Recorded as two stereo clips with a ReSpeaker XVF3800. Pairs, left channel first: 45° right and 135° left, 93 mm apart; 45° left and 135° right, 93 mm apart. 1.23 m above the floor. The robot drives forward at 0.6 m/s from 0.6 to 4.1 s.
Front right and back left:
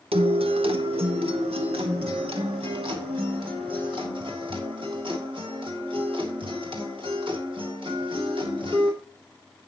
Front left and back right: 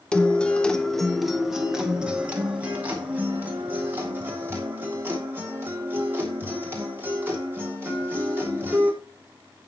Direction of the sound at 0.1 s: 125° left.